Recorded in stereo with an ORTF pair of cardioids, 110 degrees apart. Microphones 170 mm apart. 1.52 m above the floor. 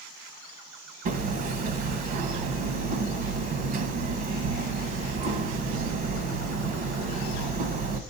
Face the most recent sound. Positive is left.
turn(degrees=-60)